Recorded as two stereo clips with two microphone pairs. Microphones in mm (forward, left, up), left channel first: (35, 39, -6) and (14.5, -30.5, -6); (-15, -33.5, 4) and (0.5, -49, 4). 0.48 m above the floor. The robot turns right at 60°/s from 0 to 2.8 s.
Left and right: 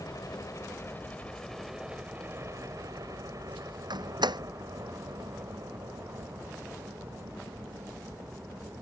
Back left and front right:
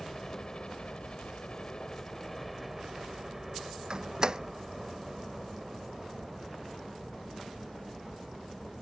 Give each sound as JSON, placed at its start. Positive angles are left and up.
{"t": 0.0, "sound": "a helicopter", "azimuth_deg": 65}
{"t": 3.9, "sound": "a door slam", "azimuth_deg": -100}